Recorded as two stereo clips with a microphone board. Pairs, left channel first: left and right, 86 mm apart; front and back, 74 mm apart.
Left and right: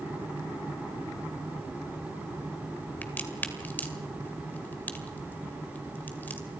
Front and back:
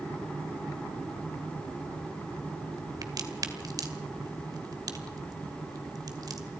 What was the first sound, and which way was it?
A crack, 155° left.